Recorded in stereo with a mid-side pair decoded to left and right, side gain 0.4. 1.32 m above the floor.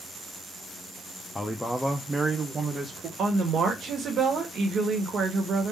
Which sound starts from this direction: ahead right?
A woman speaking, at 3.2 s.